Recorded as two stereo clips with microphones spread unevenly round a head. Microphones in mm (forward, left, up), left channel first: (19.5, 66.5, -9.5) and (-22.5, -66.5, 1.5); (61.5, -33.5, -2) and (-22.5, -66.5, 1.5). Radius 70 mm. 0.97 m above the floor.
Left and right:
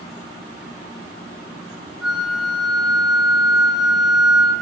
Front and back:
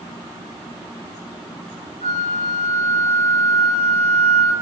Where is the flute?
165° left, 3 m.